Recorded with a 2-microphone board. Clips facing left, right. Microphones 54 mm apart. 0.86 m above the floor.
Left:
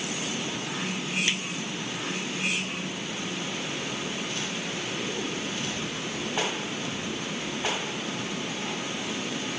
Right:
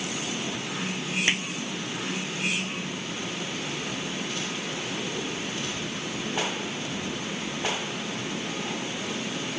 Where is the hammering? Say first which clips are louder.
Right 4 dB; 40° right (ahead or behind).